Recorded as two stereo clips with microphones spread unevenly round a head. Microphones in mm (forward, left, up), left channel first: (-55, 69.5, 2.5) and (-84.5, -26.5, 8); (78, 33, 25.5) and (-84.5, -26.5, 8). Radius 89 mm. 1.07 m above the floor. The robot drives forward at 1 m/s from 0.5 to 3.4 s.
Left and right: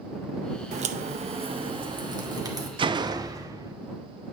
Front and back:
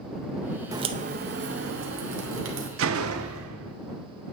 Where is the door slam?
140° right, 0.5 m; by 3.7 s 160° right, 1.1 m.